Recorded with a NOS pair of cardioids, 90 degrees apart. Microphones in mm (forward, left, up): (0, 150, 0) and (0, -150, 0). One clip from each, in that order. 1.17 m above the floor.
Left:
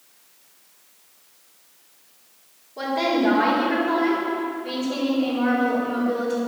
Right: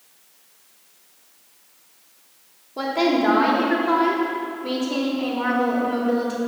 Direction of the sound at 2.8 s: 45° right.